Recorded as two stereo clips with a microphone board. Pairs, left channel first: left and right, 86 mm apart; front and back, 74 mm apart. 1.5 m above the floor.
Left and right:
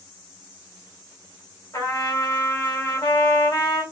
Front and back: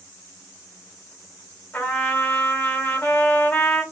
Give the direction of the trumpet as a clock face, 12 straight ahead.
10 o'clock.